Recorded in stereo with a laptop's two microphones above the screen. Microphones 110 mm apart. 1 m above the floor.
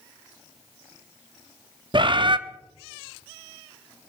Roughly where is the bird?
Right.